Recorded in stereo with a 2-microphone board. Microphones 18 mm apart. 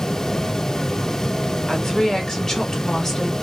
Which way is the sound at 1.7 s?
25° left (ahead or behind).